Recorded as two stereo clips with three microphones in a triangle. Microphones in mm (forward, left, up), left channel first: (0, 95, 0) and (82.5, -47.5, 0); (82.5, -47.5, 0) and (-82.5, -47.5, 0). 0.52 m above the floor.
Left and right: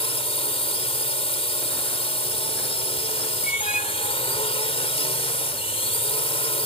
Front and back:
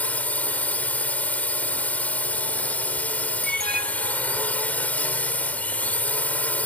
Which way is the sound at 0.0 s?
80° left.